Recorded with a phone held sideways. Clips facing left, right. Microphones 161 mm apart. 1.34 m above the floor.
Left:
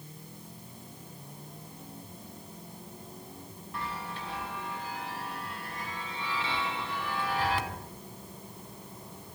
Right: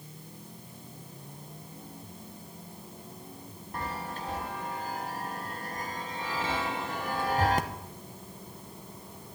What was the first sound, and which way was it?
A chime, 45° right (ahead or behind).